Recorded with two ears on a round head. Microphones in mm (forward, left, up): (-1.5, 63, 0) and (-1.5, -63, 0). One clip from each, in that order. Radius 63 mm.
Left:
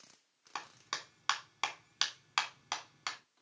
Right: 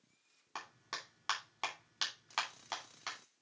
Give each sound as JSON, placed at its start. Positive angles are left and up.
{"t": 0.6, "sound": "a clap", "side_deg": 30, "distance_m": 3.0}